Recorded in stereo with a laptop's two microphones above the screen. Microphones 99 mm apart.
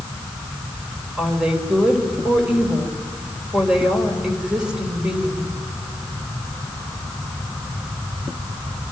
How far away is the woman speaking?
About 3 m.